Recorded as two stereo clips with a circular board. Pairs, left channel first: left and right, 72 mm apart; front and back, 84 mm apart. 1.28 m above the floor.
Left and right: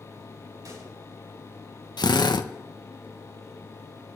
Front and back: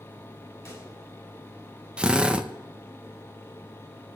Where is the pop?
60° right, 8 m.